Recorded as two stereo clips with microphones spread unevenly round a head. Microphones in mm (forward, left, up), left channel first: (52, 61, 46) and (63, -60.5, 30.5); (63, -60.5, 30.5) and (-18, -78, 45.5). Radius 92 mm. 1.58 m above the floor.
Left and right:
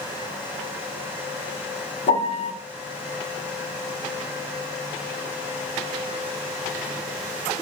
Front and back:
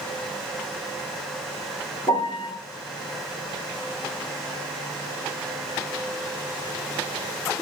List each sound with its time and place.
2.1 s a piano: 65° left, 0.8 m